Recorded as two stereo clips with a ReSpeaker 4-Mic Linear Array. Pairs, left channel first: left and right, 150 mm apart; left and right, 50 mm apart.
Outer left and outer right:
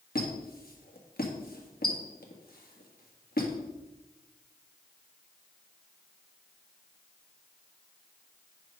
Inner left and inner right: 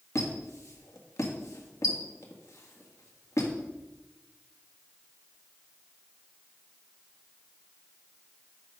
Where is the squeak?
85° left, 1.7 m.